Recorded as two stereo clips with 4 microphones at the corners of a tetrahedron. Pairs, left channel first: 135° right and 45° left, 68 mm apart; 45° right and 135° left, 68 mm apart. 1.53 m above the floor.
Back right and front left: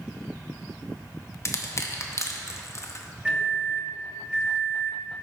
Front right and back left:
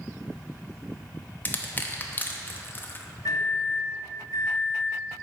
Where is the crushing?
105° right, 0.6 m.